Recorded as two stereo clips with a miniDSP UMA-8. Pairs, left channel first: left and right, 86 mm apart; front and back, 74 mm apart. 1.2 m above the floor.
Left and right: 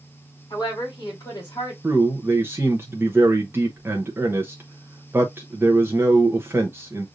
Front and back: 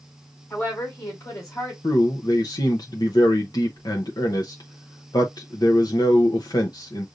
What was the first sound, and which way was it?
A woman speaking, 50° left.